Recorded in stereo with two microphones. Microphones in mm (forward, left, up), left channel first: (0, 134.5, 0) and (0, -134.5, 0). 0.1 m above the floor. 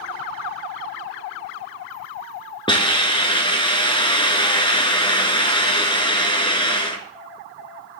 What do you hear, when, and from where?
2.7 s a hiss: 20° left (ahead or behind), 1.4 m